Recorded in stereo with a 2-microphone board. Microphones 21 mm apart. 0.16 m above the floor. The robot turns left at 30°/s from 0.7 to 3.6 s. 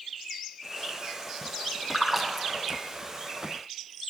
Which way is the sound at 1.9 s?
Centre (ahead or behind).